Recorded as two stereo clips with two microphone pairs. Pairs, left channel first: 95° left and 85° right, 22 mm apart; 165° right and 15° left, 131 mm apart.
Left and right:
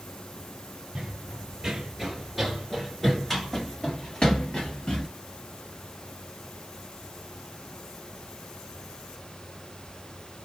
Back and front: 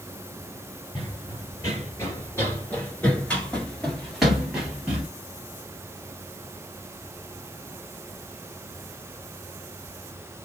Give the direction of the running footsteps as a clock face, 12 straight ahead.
4 o'clock.